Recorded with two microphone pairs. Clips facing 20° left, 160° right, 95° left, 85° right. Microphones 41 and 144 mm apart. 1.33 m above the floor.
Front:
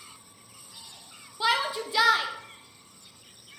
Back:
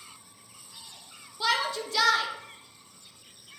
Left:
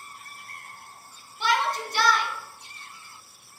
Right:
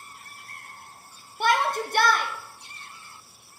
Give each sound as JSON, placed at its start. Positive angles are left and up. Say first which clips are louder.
{"t": 1.4, "sound": "a shout", "louder": "front 1 dB, right 2 dB", "azimuth_deg": -50, "distance_m": 0.6}